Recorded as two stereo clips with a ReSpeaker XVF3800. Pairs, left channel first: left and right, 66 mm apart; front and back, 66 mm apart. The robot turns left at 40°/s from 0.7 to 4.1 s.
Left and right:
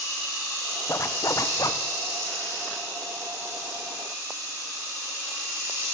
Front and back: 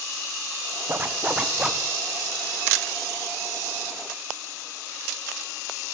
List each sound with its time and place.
0.9 s a zipper: 130° left, 0.5 m; by 1.8 s 95° left, 0.5 m